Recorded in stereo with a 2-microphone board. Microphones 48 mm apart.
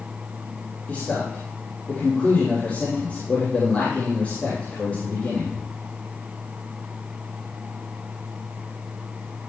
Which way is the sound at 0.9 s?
30° left (ahead or behind).